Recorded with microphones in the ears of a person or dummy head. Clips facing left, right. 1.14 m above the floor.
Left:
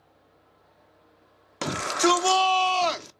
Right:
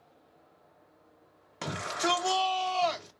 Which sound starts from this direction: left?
A shout, at 1.6 s.